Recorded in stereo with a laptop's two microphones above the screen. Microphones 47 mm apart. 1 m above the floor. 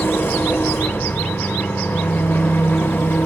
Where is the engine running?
60° left (ahead or behind), 1.9 m.